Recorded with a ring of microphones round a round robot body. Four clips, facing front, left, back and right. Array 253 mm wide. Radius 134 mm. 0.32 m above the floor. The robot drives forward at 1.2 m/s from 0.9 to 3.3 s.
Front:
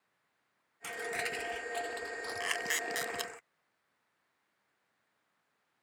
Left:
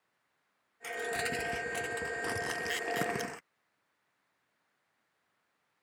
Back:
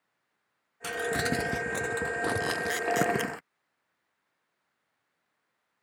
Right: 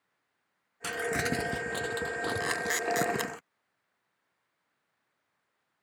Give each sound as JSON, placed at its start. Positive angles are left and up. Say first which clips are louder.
{"t": 0.8, "sound": "crumpling", "louder": "right 4 dB, back 9 dB", "azimuth_deg": -125}
{"t": 2.4, "sound": "a camera shutter", "louder": "right 5 dB, back 7 dB", "azimuth_deg": -75}